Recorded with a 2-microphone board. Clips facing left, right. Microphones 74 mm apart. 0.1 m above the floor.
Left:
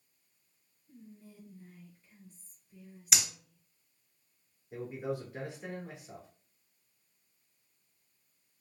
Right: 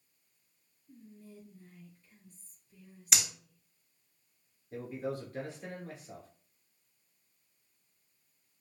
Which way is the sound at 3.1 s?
Centre (ahead or behind).